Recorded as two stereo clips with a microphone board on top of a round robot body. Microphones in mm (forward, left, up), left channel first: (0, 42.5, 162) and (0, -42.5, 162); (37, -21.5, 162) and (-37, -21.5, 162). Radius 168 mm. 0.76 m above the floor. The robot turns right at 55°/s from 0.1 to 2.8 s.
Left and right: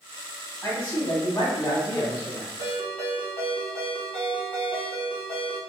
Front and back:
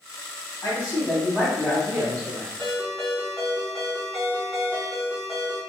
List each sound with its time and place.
0.6 s a man speaking: 35° left, 1.9 m; by 2.5 s 135° left, 1.9 m
2.6 s a ringtone: 70° left, 1.1 m; by 5.6 s 85° left, 1.1 m